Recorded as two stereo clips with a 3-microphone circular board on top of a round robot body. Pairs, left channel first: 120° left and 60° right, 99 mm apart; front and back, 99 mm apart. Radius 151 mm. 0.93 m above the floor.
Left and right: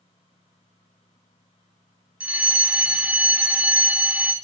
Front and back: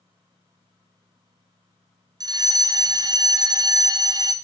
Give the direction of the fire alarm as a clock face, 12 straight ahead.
5 o'clock.